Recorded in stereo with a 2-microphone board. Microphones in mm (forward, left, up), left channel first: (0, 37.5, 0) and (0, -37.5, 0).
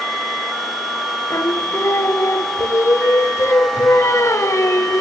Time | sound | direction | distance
1.3 | singing | 40° left (ahead or behind) | 0.9 m